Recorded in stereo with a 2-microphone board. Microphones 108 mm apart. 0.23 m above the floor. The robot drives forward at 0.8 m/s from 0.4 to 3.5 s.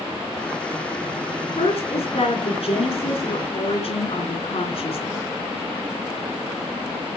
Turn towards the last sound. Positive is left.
turn(degrees=60)  # may be behind; listen again after turning